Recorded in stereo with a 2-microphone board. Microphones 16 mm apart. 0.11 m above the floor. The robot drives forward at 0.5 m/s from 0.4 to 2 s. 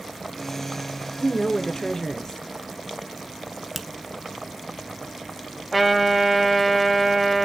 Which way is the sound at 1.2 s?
35° left (ahead or behind).